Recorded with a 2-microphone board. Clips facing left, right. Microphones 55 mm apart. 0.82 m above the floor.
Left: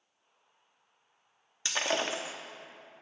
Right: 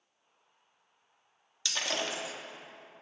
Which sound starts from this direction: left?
Breaking glass, at 1.6 s.